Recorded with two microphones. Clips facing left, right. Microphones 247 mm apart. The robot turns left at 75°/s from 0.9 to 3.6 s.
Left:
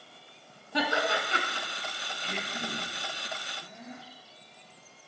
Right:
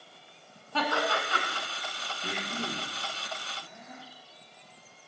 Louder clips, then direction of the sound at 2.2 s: Right 2 dB; 60° right (ahead or behind).